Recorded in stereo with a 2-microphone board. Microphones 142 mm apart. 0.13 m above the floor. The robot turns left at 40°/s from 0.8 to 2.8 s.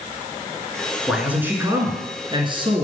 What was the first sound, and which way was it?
A man speaking, 5° right.